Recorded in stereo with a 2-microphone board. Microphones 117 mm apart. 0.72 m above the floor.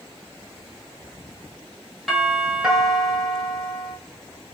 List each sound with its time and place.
2.1 s a doorbell: 5° right (ahead or behind), 1.5 m